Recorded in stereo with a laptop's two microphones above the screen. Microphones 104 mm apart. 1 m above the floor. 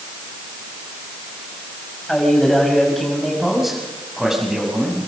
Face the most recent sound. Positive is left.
turn(degrees=-5)  # may be behind; listen again after turning